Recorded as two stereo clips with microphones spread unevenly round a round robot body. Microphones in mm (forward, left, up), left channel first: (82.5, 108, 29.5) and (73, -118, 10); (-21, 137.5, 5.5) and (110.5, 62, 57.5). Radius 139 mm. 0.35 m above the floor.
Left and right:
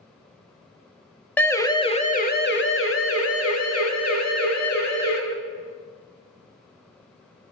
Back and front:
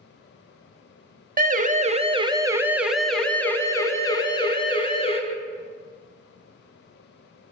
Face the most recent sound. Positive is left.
turn(degrees=100)